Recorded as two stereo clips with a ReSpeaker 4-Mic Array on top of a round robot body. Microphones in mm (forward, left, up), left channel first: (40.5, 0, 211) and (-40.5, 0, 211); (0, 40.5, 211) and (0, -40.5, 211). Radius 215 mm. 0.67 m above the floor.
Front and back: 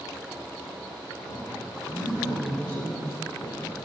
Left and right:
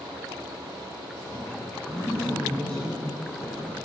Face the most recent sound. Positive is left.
turn(degrees=30)